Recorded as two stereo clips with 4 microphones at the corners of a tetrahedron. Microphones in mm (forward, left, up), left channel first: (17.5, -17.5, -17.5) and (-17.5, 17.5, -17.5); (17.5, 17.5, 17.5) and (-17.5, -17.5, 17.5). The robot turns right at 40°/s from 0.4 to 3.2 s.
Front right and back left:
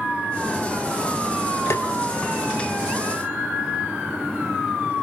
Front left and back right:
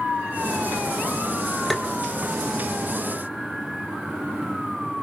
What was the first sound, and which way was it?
Tapping, 45° right.